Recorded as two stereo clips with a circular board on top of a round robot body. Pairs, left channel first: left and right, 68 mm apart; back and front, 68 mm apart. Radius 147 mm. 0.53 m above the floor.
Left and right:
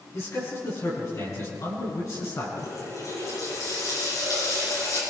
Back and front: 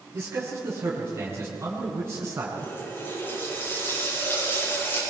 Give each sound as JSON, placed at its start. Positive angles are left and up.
{"t": 0.1, "sound": "a man speaking", "azimuth_deg": 55, "distance_m": 7.5}
{"t": 2.6, "sound": "a running tap", "azimuth_deg": 120, "distance_m": 10.0}